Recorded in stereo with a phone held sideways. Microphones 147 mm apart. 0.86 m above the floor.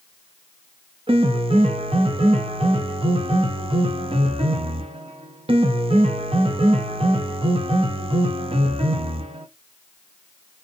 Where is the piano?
40° right (ahead or behind), 0.6 m.